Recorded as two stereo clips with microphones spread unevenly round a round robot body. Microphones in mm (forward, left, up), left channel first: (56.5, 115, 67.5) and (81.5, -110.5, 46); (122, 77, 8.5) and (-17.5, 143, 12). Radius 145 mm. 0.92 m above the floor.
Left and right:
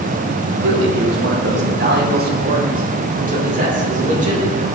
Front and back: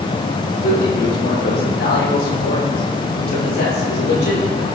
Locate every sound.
0.6 s a man speaking: 60° right, 4.5 m; by 4.7 s 25° right, 8.5 m